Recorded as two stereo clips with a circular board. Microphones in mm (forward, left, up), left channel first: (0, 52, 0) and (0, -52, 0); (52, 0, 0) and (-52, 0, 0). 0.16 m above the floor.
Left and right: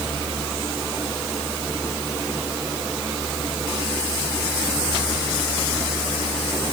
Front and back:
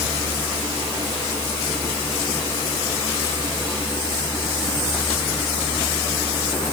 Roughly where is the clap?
No clap in this recording.